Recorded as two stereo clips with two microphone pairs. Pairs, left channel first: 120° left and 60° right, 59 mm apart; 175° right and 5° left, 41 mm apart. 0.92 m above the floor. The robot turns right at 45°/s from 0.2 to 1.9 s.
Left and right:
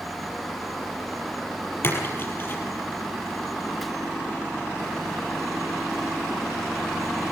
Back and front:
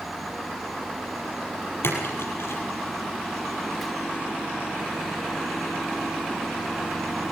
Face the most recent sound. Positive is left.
turn(degrees=170)